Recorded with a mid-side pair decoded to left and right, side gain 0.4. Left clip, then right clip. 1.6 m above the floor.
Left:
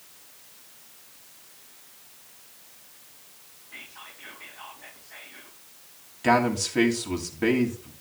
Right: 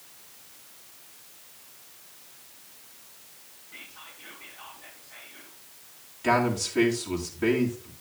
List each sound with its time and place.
3.7 s whispering: 55° left, 2 m
6.2 s a man speaking: 45° left, 2.5 m